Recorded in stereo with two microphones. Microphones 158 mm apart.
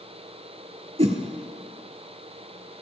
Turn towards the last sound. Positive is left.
turn(degrees=-40)  # may be behind; listen again after turning